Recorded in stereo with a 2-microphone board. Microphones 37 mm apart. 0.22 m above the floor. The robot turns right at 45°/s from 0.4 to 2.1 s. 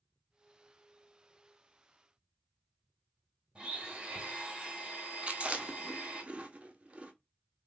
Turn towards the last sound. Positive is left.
turn(degrees=-35)  # may be behind; listen again after turning